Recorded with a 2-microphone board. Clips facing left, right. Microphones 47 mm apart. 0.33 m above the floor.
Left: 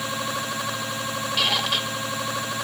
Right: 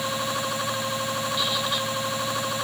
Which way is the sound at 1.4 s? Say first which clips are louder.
Left 2 dB; 75° left (ahead or behind).